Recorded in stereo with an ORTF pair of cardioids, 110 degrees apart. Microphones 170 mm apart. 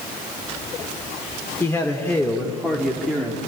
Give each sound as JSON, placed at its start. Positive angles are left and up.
{"t": 1.6, "sound": "a man speaking", "azimuth_deg": 15, "distance_m": 2.5}